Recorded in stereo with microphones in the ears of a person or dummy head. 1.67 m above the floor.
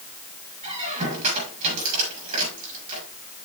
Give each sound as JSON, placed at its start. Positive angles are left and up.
{"t": 0.6, "sound": "a squeak", "side_deg": -40, "distance_m": 5.5}